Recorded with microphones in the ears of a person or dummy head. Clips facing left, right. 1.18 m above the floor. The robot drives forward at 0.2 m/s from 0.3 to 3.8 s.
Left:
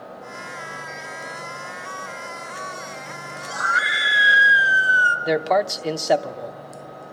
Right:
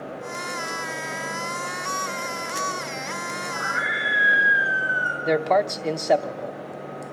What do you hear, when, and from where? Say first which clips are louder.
3.5 s a scream: left 1 dB; 85° left, 4.5 m
5.2 s a man speaking: even; 5° left (ahead or behind), 0.7 m